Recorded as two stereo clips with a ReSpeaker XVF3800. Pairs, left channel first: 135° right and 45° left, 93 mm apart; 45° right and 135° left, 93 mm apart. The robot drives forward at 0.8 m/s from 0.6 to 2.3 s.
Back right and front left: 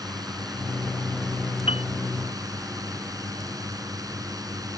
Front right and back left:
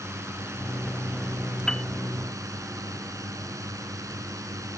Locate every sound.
0.0 s a drone: 80° left; by 4.8 s 85° left
1.7 s a piano: 130° right